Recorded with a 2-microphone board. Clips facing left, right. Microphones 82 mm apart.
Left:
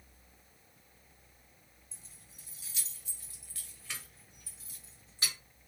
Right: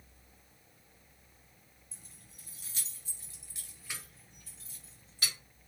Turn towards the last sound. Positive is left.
turn(degrees=25)  # may be behind; listen again after turning